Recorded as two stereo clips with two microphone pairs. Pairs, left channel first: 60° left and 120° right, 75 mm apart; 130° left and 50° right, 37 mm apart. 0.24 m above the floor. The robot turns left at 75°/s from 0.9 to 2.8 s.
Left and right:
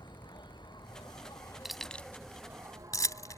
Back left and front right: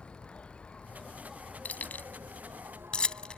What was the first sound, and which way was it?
An insect, 65° left.